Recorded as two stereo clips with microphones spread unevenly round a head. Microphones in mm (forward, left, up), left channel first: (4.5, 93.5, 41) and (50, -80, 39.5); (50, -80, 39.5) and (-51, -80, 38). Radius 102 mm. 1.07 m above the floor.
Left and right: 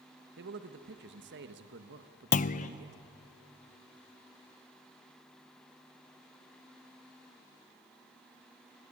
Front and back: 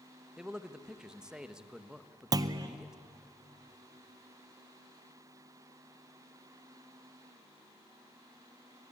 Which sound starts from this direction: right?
A man speaking, at 0.4 s.